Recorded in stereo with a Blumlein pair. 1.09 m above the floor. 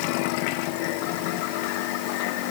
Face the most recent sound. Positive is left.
No sound to turn to.